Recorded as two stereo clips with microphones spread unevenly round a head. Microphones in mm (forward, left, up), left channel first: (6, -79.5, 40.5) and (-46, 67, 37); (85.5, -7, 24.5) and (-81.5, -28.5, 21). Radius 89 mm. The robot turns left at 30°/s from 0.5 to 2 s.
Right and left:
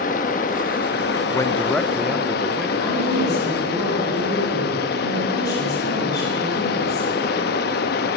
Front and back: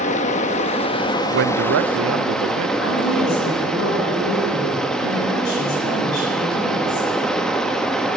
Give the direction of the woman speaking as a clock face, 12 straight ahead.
12 o'clock.